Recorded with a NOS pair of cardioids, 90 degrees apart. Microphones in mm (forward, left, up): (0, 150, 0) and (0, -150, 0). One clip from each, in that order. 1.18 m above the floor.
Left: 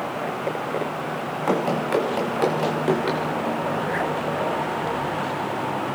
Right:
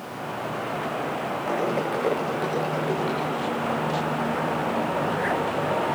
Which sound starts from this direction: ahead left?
Running footsteps, at 1.5 s.